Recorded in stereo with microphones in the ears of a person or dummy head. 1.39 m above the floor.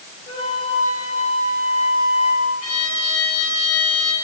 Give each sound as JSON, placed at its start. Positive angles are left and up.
{"t": 0.3, "sound": "a flute", "side_deg": 35, "distance_m": 9.0}
{"t": 2.6, "sound": "a violin", "side_deg": 80, "distance_m": 6.0}